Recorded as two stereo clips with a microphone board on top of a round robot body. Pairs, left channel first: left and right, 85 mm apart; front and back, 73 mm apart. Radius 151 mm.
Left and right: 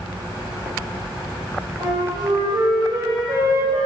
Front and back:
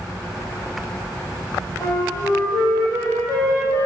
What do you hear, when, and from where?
1.8 s a flute: 50° right, 8 m